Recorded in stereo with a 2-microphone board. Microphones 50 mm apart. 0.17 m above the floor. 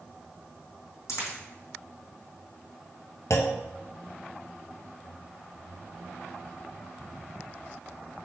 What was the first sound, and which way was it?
A dropped coin, 75° left (ahead or behind).